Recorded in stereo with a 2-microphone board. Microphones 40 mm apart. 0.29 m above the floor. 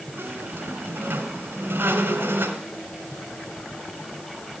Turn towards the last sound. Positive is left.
turn(degrees=-65)  # may be behind; listen again after turning